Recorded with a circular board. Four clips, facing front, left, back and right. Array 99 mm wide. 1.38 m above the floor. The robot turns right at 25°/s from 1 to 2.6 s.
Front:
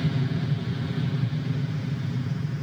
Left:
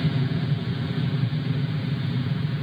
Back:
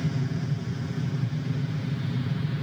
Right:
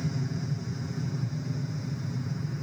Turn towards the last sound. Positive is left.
turn(degrees=110)